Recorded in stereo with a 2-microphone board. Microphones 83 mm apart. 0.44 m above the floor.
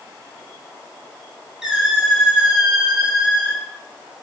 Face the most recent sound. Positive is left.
turn(degrees=-5)  # may be behind; listen again after turning